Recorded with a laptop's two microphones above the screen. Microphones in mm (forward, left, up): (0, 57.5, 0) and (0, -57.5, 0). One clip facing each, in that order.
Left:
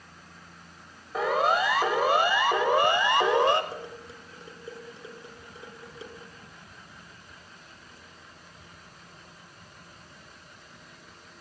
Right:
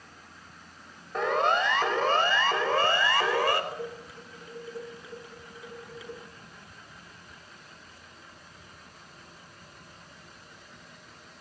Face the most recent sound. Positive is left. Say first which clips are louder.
# right 2 dB
turn(degrees=25)  # may be behind; listen again after turning